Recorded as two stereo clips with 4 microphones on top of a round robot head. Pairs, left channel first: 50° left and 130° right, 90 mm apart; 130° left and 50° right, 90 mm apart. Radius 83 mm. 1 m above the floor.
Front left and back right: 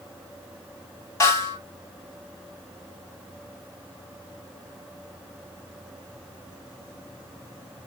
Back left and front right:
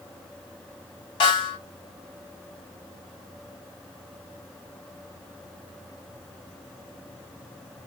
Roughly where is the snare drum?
Left.